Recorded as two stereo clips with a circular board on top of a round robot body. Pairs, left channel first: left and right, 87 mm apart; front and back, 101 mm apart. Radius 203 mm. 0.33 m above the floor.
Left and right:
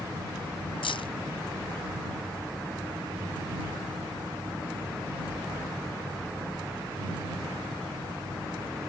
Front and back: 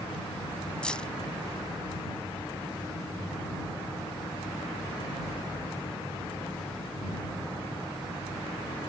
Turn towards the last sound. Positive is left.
turn(degrees=80)